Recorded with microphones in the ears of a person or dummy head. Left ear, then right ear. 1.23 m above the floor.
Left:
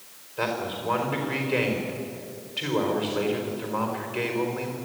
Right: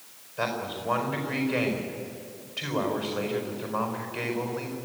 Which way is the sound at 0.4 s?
20° left (ahead or behind).